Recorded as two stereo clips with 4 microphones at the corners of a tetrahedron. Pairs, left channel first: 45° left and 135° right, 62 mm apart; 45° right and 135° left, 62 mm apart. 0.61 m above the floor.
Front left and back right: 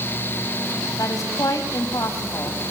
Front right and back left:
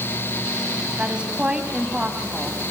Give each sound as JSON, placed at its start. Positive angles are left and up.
{"t": 1.0, "sound": "a woman speaking", "azimuth_deg": 65, "distance_m": 4.0}